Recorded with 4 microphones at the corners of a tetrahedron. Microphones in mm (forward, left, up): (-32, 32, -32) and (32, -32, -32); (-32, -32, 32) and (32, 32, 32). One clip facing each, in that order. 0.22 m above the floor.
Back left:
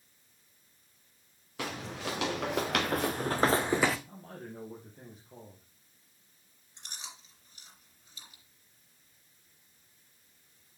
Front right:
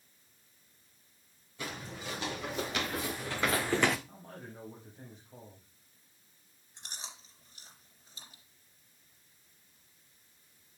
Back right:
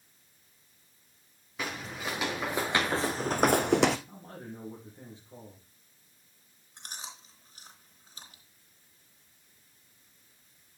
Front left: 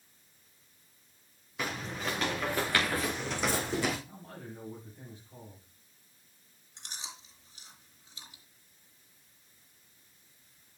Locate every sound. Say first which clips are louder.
1.6 s footsteps: back left 4 dB, front left 1 dB; 135° left, 2.5 m; by 4.0 s 135° right, 1.0 m
4.1 s a man speaking: back left 3 dB, back right 2 dB; 170° left, 4.5 m
6.8 s chewing: even, back right 2 dB; 95° right, 3.5 m